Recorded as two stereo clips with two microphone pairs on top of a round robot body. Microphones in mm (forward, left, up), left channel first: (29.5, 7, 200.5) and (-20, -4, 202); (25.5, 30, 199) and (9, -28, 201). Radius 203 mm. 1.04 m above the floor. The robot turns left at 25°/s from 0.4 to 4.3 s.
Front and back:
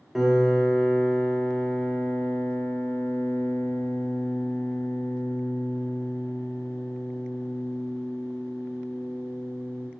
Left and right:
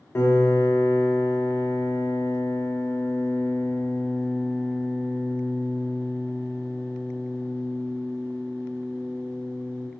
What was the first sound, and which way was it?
A piano, 105° left.